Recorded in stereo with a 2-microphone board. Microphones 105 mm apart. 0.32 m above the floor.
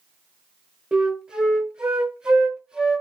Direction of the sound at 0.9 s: 10° right (ahead or behind).